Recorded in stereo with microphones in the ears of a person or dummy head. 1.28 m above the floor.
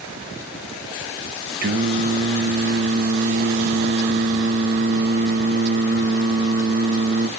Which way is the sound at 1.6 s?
50° right (ahead or behind).